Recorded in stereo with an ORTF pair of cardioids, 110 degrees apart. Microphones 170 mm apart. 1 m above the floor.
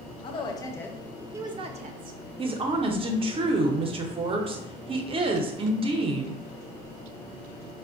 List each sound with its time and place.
0.2 s a woman speaking: 35° left, 0.8 m; by 2.2 s 65° right, 0.6 m
2.4 s a woman speaking: 35° right, 0.6 m